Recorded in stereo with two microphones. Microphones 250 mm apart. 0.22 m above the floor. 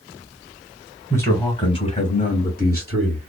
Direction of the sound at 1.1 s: 10° left (ahead or behind).